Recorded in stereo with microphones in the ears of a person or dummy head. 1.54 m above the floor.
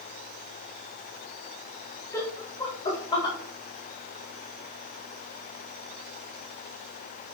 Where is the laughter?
15° left (ahead or behind), 1.3 m; by 3.4 s 25° left (ahead or behind), 2 m.